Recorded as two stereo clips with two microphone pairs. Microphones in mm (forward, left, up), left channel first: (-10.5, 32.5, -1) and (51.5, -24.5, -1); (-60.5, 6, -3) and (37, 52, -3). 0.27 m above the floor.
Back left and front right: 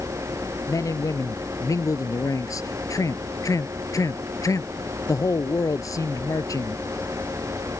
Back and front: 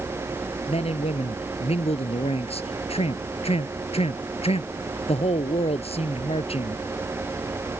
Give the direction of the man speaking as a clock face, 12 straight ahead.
6 o'clock.